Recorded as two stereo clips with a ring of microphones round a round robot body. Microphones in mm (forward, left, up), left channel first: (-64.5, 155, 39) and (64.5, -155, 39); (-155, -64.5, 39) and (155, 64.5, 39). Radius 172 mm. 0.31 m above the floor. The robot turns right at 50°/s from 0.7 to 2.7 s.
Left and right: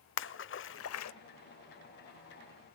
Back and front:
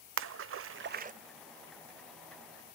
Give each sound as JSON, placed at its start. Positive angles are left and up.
{"t": 0.2, "sound": "a splash", "azimuth_deg": 65, "distance_m": 0.7}